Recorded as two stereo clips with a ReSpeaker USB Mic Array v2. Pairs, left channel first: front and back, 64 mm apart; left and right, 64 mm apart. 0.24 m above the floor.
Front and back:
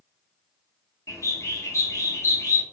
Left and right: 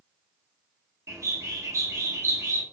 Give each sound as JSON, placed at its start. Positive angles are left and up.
{"t": 1.1, "sound": "a bird", "azimuth_deg": -45, "distance_m": 0.8}